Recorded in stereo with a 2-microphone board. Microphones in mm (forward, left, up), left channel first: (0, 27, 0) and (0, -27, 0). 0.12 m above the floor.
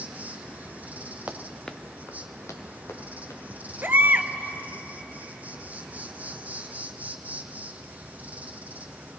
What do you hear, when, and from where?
0.0 s an insect: 30° right (ahead or behind), 1.0 m
1.3 s running footsteps: 30° right (ahead or behind), 0.9 m; by 3.4 s 80° left, 2.5 m
3.8 s a baby crying: 40° right (ahead or behind), 0.6 m